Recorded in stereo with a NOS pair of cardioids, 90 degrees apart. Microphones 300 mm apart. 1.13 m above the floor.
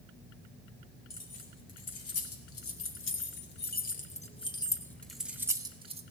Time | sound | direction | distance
1.1 | keys jangling | 60° left | 3 m